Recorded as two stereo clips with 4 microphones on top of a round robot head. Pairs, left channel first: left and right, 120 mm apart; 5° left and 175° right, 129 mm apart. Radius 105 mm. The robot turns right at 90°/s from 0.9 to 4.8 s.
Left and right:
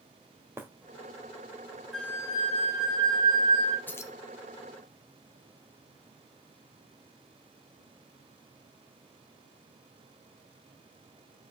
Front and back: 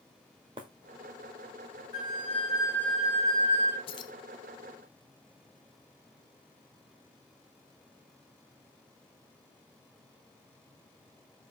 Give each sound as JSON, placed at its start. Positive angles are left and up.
{"t": 0.6, "sound": "breaking glass", "azimuth_deg": -150, "distance_m": 1.4}
{"t": 1.9, "sound": "a flute", "azimuth_deg": 0, "distance_m": 2.0}
{"t": 3.9, "sound": "keys jangling", "azimuth_deg": 20, "distance_m": 0.5}